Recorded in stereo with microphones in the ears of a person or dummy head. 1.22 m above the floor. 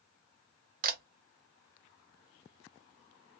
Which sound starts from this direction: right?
A camera shutter, at 0.8 s.